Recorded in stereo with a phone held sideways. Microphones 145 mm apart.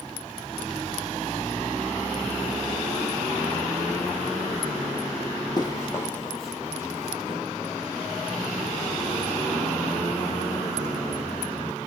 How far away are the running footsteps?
About 1.4 m.